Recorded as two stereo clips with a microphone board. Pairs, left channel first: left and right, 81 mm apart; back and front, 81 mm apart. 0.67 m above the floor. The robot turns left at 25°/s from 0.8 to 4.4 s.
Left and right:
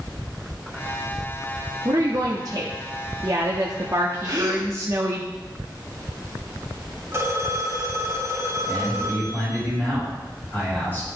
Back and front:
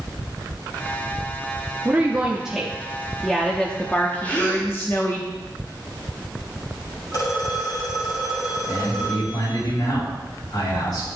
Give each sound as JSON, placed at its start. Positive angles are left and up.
{"t": 1.9, "sound": "a woman speaking", "azimuth_deg": -65, "distance_m": 0.8}
{"t": 4.2, "sound": "a gasp", "azimuth_deg": -115, "distance_m": 2.0}
{"t": 7.1, "sound": "a phone ringing", "azimuth_deg": -145, "distance_m": 3.5}
{"t": 8.7, "sound": "a man speaking", "azimuth_deg": 155, "distance_m": 4.0}